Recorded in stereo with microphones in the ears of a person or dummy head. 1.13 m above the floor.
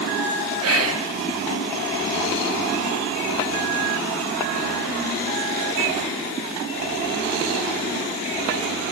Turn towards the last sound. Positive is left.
turn(degrees=-75)  # may be behind; listen again after turning